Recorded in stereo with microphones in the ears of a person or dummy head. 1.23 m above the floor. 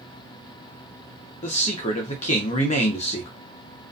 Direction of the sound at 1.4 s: 35° left (ahead or behind).